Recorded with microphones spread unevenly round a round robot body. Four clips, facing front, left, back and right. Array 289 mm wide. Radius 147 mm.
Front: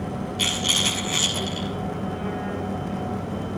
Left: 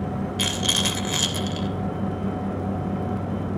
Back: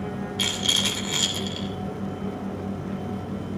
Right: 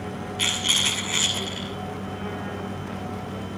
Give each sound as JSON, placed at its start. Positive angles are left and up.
{"t": 0.4, "sound": "a rattle", "azimuth_deg": 115, "distance_m": 2.5}